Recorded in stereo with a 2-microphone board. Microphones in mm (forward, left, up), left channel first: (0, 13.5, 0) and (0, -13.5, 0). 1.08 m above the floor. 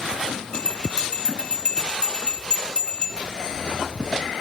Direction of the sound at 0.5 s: 25° left (ahead or behind).